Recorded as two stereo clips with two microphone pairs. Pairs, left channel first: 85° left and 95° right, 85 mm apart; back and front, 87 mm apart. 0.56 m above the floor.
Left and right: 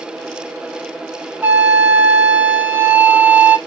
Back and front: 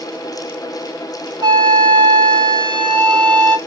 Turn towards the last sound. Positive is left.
turn(degrees=-25)